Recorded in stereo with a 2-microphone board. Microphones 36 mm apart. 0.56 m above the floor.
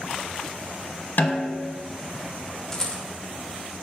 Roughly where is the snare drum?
Left.